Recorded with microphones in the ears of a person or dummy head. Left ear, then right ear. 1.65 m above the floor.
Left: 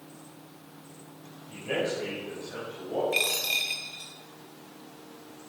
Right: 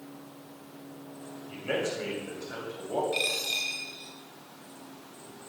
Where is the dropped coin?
30° left (ahead or behind), 2.5 m.